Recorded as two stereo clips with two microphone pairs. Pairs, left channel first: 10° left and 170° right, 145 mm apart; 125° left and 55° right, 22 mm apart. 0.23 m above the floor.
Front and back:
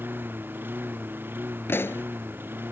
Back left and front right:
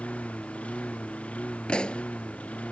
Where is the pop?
85° left.